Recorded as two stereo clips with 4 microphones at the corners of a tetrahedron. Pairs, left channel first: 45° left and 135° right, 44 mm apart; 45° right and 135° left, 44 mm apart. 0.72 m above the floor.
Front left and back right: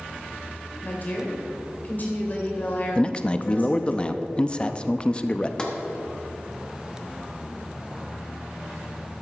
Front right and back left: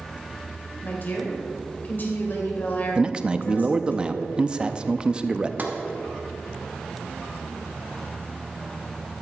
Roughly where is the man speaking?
Left.